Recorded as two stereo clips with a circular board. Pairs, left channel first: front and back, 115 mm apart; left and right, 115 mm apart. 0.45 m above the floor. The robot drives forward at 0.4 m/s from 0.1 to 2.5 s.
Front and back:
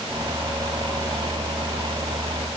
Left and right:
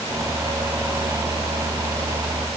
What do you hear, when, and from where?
Only background noise.